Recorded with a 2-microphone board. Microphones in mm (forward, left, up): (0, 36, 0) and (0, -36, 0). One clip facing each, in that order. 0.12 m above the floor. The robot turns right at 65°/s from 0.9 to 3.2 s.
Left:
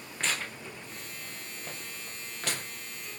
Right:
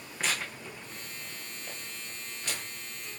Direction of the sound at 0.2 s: 5° right (ahead or behind).